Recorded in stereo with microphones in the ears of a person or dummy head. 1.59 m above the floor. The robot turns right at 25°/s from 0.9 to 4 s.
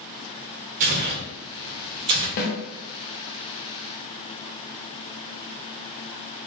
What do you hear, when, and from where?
0.8 s tearing paper: 35° right (ahead or behind), 0.7 m; by 2.3 s 30° right (ahead or behind), 0.7 m
2.4 s a snare drum: 50° left (ahead or behind), 0.7 m